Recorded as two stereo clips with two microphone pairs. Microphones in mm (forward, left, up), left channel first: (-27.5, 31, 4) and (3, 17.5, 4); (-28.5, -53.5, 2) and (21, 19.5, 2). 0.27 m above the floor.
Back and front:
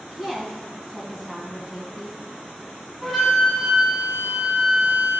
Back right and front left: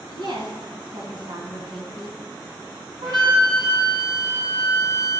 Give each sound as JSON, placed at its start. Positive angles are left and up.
{"t": 0.1, "sound": "a woman speaking", "azimuth_deg": 60, "distance_m": 1.9}
{"t": 3.0, "sound": "a flute", "azimuth_deg": 70, "distance_m": 2.0}